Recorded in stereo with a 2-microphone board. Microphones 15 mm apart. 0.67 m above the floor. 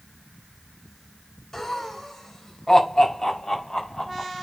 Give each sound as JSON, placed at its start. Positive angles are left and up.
{"t": 1.5, "sound": "laughter", "side_deg": 20, "distance_m": 4.0}